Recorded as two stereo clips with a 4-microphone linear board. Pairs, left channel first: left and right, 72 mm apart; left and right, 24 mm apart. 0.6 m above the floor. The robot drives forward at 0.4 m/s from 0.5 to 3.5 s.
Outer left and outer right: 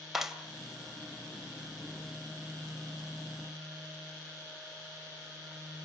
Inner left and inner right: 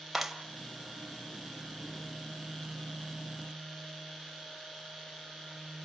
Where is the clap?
5° right (ahead or behind), 2 m.